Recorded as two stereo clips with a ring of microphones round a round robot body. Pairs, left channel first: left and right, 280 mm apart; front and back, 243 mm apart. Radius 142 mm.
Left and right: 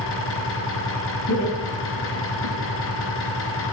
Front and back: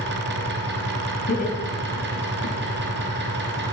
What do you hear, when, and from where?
0.0 s an engine running: 135° left, 3.5 m
1.3 s laughter: 50° left, 8.5 m